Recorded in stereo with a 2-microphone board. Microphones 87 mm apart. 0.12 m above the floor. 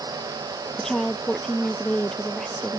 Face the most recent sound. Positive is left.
turn(degrees=10)  # may be behind; listen again after turning